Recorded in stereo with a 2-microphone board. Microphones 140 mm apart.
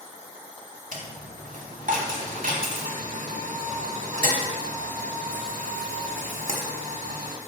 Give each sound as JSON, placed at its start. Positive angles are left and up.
{"t": 0.9, "sound": "a dropped coin", "side_deg": -75, "distance_m": 1.2}